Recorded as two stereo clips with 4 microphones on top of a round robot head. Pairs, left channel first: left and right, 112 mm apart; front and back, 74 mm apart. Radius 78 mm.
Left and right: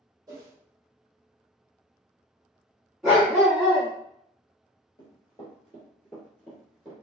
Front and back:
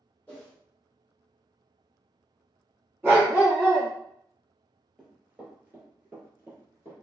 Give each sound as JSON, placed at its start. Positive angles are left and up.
{"t": 0.3, "sound": "a whoosh", "azimuth_deg": -60, "distance_m": 0.8}
{"t": 3.0, "sound": "a dog barking", "azimuth_deg": -175, "distance_m": 1.2}
{"t": 5.0, "sound": "running footsteps", "azimuth_deg": 105, "distance_m": 1.9}